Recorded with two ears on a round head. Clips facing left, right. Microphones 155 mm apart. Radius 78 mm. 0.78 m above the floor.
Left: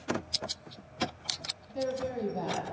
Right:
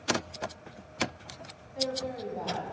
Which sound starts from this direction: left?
A woman speaking, at 1.7 s.